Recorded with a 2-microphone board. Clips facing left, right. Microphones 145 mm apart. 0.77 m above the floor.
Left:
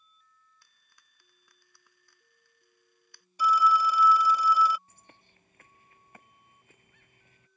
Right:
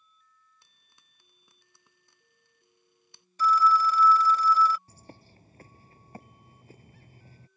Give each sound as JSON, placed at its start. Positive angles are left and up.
{"t": 0.6, "sound": "frying", "side_deg": -25}
{"t": 3.4, "sound": "a phone ringing", "side_deg": 10}
{"t": 4.9, "sound": "a bird", "side_deg": -35}